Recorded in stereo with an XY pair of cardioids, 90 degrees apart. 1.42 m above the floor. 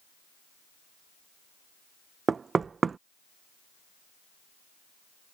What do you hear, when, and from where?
2.3 s knocking: 45° right